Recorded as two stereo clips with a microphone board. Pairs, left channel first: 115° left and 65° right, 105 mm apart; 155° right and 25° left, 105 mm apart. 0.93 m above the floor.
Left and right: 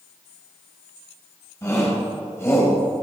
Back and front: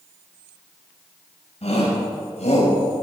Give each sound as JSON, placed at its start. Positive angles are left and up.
{"t": 1.6, "sound": "a shout", "azimuth_deg": 175, "distance_m": 5.5}